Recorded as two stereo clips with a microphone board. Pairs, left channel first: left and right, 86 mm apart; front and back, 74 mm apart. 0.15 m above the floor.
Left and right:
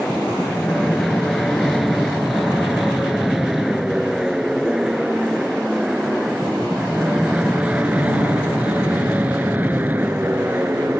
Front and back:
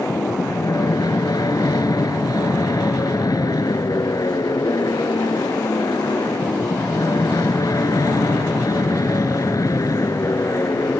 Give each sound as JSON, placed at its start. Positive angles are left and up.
{"t": 0.0, "sound": "an aircraft", "azimuth_deg": 5}